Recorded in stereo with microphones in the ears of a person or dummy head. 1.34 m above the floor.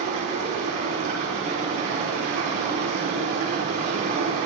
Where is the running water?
55° right (ahead or behind), 3.5 m.